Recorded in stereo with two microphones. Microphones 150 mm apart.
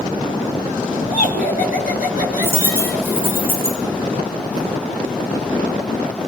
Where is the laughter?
65° left (ahead or behind), 2.5 m; by 3.4 s 55° left (ahead or behind), 2.5 m.